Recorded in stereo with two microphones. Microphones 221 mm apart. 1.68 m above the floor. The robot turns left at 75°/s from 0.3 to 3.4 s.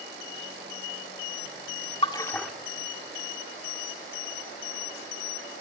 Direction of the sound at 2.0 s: 25° left (ahead or behind).